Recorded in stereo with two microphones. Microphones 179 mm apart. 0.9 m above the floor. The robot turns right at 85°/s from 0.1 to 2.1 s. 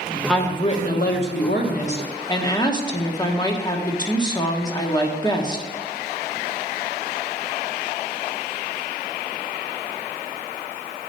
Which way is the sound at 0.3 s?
5° left.